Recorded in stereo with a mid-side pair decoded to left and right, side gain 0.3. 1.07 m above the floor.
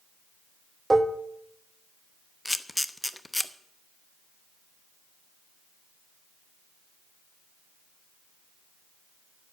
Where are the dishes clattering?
25° right, 0.8 m.